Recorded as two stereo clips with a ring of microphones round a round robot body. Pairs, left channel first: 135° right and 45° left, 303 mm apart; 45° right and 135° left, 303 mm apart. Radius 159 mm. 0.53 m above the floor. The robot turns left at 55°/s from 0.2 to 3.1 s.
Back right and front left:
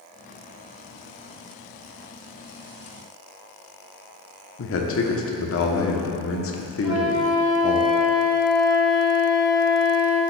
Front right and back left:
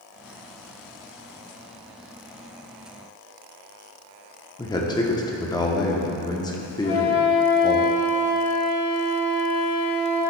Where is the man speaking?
115° right, 1.1 m.